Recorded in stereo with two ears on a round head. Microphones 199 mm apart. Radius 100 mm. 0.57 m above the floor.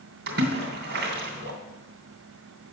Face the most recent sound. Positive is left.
turn(degrees=-50)  # may be behind; listen again after turning